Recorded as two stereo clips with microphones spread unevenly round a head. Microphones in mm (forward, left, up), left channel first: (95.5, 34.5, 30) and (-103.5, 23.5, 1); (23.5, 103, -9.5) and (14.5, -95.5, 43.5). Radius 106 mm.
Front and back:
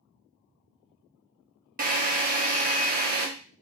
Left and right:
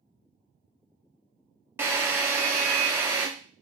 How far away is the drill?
About 0.7 m.